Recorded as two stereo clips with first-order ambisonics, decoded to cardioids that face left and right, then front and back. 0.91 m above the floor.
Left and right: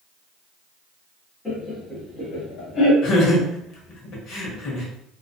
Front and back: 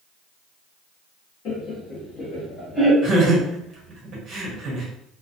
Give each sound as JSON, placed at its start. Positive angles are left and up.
{"t": 1.4, "sound": "laughter", "azimuth_deg": 15, "distance_m": 1.1}
{"t": 3.0, "sound": "laughter", "azimuth_deg": 125, "distance_m": 0.9}